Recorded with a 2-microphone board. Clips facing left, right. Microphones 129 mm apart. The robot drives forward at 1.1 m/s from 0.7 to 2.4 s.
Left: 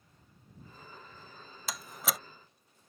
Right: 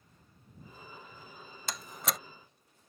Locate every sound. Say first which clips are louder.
1.7 s a door slam: even; centre (ahead or behind)